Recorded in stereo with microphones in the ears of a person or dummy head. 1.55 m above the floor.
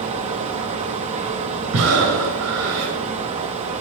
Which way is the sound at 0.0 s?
30° right (ahead or behind).